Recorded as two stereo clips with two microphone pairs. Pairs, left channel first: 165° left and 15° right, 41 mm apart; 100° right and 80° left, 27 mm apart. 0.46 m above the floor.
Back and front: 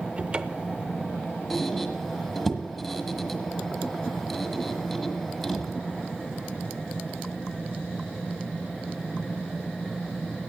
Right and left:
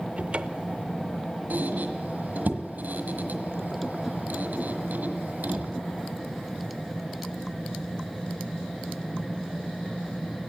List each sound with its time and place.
0.2 s a cupboard door: 45° left, 0.6 m
1.5 s a squeak: 80° left, 1.5 m